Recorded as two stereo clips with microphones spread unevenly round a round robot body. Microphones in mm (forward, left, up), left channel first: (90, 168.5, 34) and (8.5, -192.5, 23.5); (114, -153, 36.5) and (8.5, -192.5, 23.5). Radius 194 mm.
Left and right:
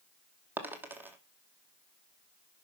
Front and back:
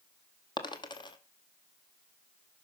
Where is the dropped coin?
20° right, 1.2 m.